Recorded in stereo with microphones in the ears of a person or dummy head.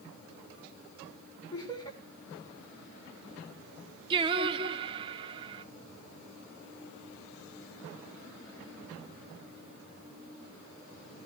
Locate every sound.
1.5 s laughter: 20° left (ahead or behind), 6 m
4.1 s singing: 30° right (ahead or behind), 0.7 m